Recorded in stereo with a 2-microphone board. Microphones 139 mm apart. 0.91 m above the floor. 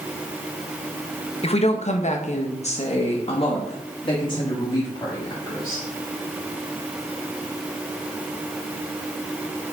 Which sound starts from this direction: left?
A woman speaking, at 1.4 s.